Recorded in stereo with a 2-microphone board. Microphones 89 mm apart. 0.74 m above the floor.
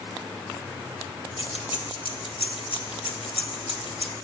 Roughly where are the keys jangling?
Left.